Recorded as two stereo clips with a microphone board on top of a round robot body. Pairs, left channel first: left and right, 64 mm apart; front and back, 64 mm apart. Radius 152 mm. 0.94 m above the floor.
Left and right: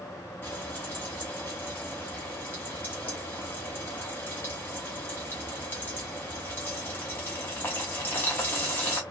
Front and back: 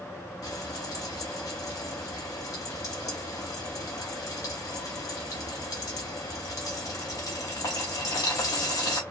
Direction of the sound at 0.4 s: 30° left.